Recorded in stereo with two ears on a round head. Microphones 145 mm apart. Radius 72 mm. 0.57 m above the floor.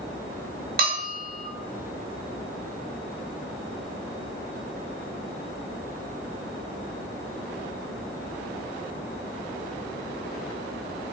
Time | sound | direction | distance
0.8 | a bell | 60° right (ahead or behind) | 0.7 m